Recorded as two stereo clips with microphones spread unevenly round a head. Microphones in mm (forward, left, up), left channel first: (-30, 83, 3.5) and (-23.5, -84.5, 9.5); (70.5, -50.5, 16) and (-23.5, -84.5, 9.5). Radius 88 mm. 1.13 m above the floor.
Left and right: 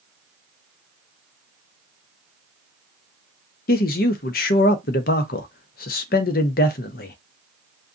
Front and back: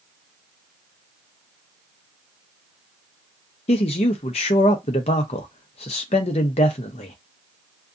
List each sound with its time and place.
3.7 s a man speaking: 55° left, 0.5 m